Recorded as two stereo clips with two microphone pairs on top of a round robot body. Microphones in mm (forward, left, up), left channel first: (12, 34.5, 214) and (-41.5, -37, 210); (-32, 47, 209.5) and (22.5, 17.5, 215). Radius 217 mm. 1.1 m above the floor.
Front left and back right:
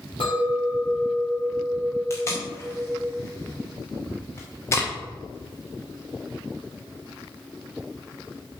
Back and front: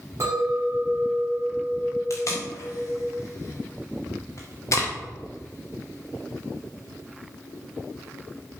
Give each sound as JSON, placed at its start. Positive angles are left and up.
{"t": 0.2, "sound": "a clink", "azimuth_deg": 15, "distance_m": 2.0}
{"t": 2.1, "sound": "tape being pulled", "azimuth_deg": 115, "distance_m": 0.6}